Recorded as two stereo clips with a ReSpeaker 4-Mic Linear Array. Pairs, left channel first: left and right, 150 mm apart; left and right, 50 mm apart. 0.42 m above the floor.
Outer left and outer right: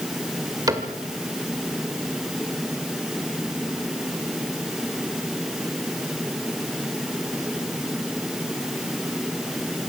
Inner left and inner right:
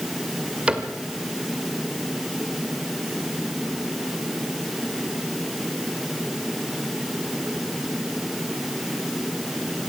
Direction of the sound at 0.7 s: 25° right (ahead or behind).